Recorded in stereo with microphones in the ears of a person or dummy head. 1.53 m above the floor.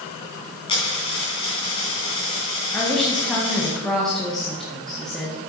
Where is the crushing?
I don't hear crushing.